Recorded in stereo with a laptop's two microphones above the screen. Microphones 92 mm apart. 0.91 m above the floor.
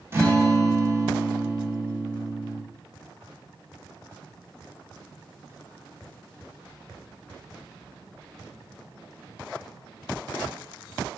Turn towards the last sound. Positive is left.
turn(degrees=-30)  # may be behind; listen again after turning